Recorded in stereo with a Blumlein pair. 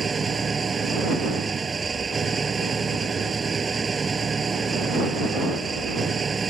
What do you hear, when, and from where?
0.0 s an engine running: 15° right